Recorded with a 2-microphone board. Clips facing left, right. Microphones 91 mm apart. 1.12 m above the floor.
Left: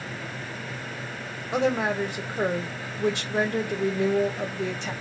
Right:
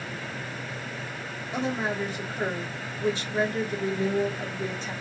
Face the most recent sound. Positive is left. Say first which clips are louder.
# left 5 dB
turn(degrees=70)  # may be behind; listen again after turning